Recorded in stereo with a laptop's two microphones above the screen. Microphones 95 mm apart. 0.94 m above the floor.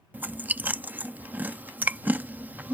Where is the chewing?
20° right (ahead or behind).